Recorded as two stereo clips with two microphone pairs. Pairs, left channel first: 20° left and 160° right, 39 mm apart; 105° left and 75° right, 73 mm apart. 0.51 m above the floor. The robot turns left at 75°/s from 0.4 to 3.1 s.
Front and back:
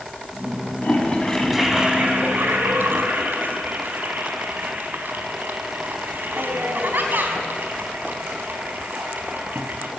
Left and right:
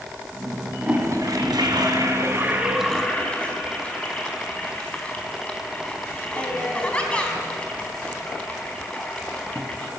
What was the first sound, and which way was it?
A toilet flushing, 15° right.